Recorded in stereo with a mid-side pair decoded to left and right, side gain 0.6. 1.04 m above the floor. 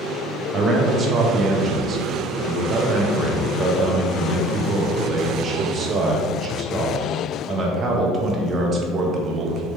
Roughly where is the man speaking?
Ahead right.